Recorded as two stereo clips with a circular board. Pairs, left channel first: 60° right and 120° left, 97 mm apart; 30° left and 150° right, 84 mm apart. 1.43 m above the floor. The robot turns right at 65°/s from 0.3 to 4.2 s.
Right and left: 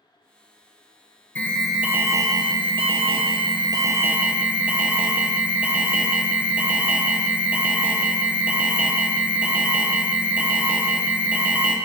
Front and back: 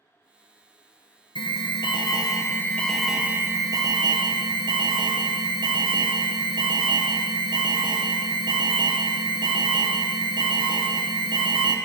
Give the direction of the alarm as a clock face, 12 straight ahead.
12 o'clock.